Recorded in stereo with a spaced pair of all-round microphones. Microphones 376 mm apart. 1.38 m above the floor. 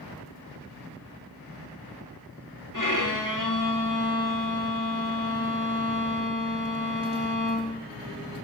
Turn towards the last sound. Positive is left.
turn(degrees=50)  # may be behind; listen again after turning